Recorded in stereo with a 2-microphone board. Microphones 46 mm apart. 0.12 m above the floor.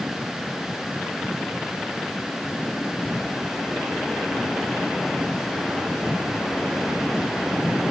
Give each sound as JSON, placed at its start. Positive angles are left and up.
{"t": 3.0, "sound": "footsteps", "side_deg": 5, "distance_m": 5.0}